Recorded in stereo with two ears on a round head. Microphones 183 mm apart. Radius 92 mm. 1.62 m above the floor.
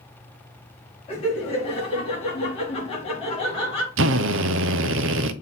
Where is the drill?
65° right (ahead or behind), 0.7 m.